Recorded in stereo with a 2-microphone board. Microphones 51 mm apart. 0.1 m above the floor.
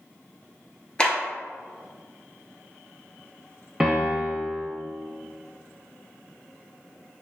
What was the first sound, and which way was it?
A clap, 20° left (ahead or behind).